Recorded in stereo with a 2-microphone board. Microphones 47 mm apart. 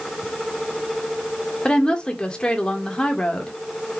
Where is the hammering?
No hammering in this recording.